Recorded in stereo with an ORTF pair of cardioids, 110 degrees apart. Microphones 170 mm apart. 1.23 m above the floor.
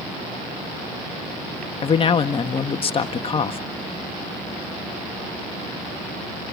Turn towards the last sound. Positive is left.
turn(degrees=35)